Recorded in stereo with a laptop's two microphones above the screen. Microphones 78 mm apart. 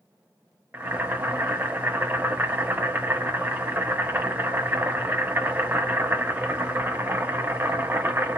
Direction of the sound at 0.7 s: 25° right (ahead or behind).